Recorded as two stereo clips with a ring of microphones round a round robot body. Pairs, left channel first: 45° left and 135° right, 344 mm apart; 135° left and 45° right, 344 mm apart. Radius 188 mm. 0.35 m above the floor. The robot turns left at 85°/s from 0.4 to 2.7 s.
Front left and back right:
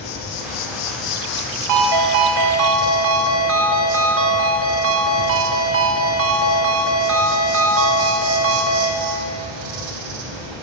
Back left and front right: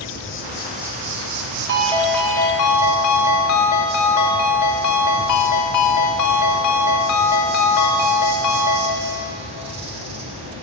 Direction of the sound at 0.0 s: 75° left.